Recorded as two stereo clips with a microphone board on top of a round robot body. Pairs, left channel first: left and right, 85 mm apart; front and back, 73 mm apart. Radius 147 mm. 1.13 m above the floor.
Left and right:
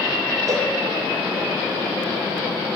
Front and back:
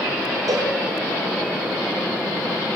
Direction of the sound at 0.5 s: 140° right.